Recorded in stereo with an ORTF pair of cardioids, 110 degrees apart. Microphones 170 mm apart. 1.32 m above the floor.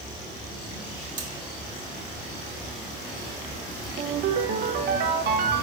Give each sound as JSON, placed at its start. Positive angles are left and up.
{"t": 1.2, "sound": "cutlery clinking", "azimuth_deg": -45, "distance_m": 2.0}
{"t": 4.0, "sound": "a ringtone", "azimuth_deg": -65, "distance_m": 1.0}